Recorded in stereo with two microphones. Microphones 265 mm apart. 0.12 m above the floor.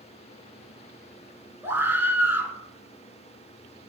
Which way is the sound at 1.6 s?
10° right (ahead or behind).